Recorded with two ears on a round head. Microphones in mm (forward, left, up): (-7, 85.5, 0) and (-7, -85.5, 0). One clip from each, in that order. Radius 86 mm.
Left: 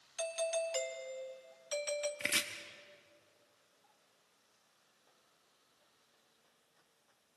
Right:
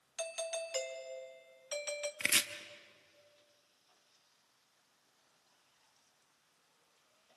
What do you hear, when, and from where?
0.2 s a doorbell: 5° right (ahead or behind), 1.0 m
2.2 s chopping: 20° right (ahead or behind), 0.8 m